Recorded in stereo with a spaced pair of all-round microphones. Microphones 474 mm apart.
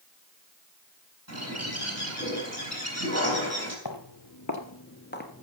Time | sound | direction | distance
1.3 | a bird | 30° right (ahead or behind) | 5 m
3.9 | footsteps | 50° left (ahead or behind) | 1.6 m